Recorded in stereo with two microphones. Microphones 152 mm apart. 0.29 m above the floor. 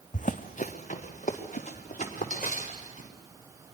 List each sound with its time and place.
0.1 s running footsteps: 55° left (ahead or behind), 0.9 m; by 3.1 s 50° left (ahead or behind), 5 m